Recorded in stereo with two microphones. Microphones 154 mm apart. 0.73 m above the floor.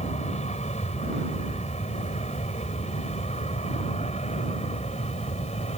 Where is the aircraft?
50° left (ahead or behind); by 5.8 s 45° left (ahead or behind).